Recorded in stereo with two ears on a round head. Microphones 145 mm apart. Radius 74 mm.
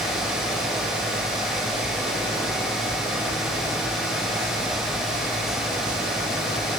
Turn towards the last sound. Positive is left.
No sound to turn to.